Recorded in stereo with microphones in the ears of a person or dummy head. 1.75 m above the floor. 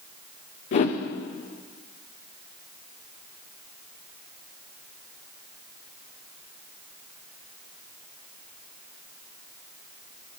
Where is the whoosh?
35° left (ahead or behind), 1.1 m.